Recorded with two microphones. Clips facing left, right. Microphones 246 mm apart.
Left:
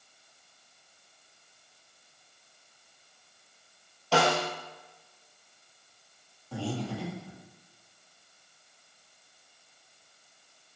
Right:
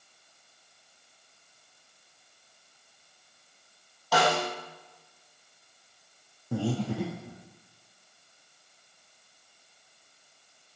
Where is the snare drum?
30° left (ahead or behind), 2 m.